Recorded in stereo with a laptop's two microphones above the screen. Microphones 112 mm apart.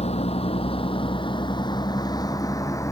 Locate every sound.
0.0 s a vehicle: 65° left (ahead or behind); by 2.9 s 25° left (ahead or behind)